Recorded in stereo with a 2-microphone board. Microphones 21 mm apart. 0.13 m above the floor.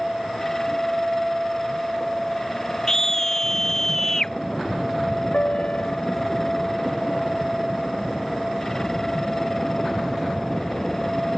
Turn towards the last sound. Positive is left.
turn(degrees=85)